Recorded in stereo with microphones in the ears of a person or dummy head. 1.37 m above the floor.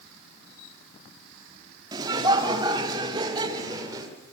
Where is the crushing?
No crushing in this recording.